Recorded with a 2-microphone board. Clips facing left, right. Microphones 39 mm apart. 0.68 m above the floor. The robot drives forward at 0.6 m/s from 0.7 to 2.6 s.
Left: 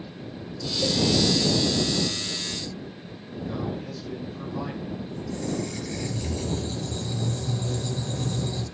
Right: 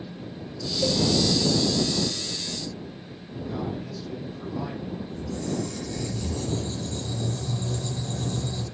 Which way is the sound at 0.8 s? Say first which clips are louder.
Right 1 dB; 5° right (ahead or behind).